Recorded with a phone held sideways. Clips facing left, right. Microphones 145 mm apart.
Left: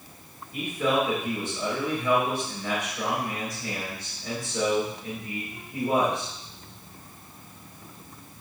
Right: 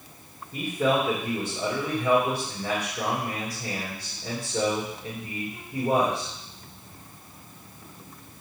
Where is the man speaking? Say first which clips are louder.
Right 1 dB; 25° right (ahead or behind), 3 m.